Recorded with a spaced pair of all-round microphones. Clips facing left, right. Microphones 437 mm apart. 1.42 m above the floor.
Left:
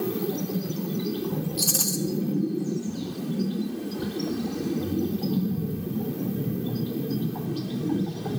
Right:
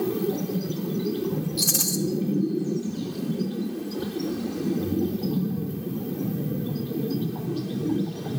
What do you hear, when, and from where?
1.6 s a rattle: 40° right (ahead or behind), 0.7 m